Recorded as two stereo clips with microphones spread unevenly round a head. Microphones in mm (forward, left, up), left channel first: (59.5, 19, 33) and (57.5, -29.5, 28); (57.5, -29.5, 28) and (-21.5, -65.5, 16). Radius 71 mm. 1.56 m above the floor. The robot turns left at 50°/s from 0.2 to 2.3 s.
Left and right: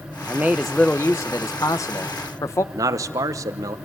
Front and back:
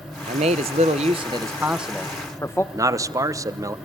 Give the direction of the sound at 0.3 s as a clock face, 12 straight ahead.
6 o'clock.